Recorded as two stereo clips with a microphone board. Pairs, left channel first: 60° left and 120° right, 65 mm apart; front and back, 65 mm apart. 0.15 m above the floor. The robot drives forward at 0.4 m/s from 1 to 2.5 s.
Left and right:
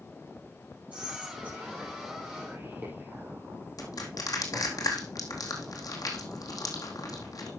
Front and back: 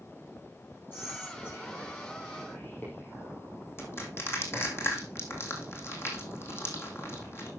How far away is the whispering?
About 3.5 m.